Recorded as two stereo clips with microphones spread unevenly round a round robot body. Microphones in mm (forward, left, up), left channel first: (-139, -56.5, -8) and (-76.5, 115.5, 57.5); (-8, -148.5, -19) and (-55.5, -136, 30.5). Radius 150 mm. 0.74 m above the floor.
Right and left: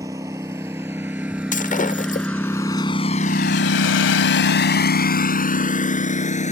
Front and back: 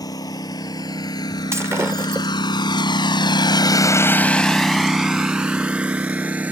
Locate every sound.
0.0 s a lawn mower: 5° right; by 6.5 s 165° right
1.5 s breaking glass: 155° right